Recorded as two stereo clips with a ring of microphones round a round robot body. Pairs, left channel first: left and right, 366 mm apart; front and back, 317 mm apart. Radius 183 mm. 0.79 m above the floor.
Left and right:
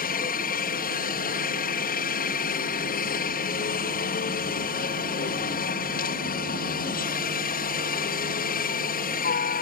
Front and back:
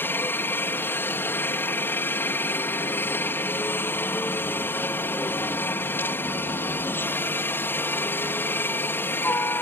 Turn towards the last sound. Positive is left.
turn(degrees=75)